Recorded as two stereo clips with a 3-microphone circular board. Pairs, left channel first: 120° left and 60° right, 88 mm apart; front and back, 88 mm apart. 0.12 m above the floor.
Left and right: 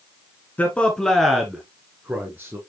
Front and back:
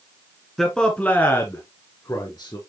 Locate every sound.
0.6 s a man speaking: 85° left, 1.3 m; by 2.6 s straight ahead, 1.9 m